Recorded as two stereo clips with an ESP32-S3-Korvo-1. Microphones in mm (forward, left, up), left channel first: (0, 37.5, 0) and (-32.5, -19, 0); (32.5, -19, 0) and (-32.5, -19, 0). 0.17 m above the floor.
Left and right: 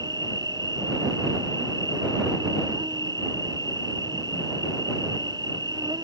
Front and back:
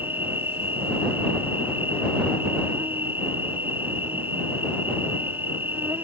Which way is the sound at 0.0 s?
120° right.